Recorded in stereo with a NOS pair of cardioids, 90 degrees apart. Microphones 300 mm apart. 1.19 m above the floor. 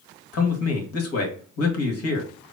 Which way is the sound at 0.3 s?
55° left.